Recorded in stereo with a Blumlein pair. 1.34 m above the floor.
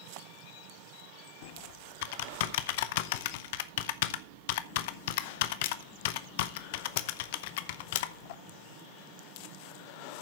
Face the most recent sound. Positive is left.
turn(degrees=50)